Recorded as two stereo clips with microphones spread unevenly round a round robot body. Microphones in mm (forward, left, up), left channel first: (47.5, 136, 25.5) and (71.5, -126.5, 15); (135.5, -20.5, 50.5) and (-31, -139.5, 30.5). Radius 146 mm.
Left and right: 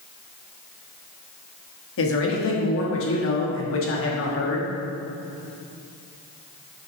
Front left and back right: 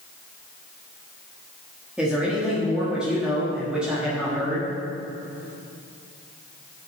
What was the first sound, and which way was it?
A man speaking, 135° left.